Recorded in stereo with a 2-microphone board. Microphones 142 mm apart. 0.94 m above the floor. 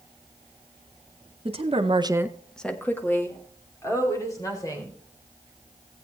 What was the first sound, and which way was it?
A woman speaking, 45° right (ahead or behind).